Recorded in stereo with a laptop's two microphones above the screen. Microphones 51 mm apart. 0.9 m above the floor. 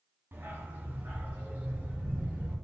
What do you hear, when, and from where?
0.3 s a dog barking: 45° right (ahead or behind), 2 m; by 2.5 s 30° right (ahead or behind), 4.5 m